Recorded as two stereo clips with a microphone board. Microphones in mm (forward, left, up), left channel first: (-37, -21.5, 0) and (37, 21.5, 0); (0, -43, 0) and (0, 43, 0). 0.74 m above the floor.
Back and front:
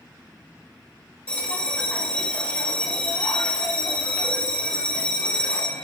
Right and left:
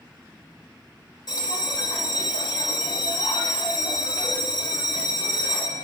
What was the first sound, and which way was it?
A bell, 80° right.